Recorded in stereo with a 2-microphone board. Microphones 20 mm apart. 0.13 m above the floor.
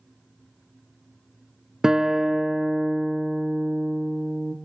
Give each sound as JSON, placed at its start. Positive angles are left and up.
{"t": 1.8, "sound": "a guitar", "side_deg": -35, "distance_m": 1.0}